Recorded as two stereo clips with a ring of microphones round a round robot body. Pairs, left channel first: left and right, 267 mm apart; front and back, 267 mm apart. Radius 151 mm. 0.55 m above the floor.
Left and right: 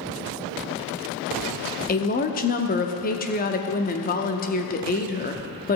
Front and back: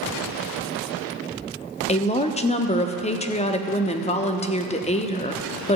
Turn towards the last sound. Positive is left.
turn(degrees=55)